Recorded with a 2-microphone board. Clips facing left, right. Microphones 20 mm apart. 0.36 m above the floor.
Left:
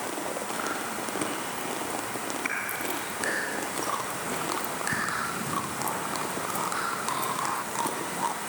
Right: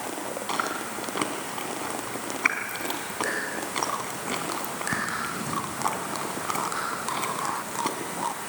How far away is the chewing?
About 2.5 m.